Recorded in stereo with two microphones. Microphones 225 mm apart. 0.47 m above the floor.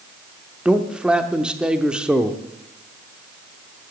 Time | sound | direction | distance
0.7 | a man speaking | 5° right (ahead or behind) | 0.9 m